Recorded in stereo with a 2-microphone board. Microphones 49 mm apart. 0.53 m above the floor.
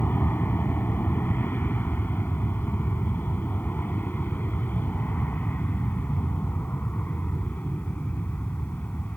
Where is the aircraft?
45° left (ahead or behind); by 9.2 s 40° left (ahead or behind).